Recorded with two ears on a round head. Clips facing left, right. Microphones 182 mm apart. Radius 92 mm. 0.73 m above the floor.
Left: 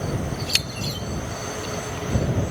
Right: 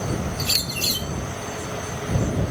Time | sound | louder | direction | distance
0.4 | a bird | right 1 dB | 70° right (ahead or behind) | ?